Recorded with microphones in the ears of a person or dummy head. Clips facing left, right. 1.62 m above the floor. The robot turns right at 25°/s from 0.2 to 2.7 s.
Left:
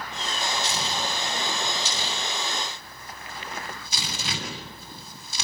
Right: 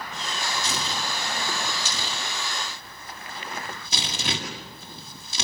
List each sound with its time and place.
0.6 s tearing paper: 65° right (ahead or behind), 8 m; by 5.4 s 60° right (ahead or behind), 8 m